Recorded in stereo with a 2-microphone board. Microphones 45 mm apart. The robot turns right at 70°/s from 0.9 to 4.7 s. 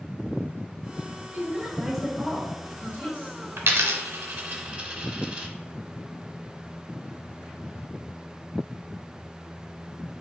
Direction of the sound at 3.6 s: 65° right (ahead or behind).